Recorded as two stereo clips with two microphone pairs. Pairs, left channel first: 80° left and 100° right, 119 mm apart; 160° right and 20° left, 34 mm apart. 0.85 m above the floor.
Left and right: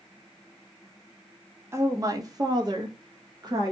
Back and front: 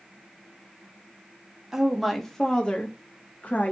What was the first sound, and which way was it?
A woman speaking, 50° right.